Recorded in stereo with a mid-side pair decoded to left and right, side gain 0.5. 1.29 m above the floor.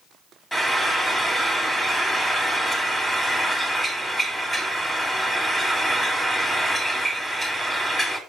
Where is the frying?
10° left, 3 m.